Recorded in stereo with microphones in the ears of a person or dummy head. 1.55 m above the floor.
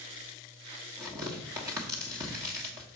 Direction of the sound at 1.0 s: 15° right (ahead or behind).